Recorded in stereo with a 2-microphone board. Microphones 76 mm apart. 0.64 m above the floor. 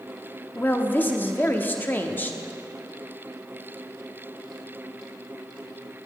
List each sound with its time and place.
0.6 s a woman speaking: 25° left (ahead or behind), 0.8 m